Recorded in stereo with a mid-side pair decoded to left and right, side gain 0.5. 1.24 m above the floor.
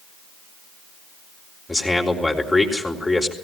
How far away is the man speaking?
About 3.5 m.